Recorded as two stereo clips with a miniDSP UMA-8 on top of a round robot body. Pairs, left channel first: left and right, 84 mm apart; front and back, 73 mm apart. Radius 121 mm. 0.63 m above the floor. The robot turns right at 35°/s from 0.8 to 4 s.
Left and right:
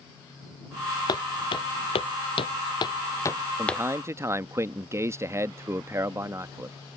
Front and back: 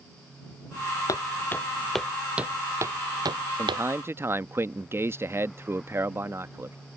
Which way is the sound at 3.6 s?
150° right.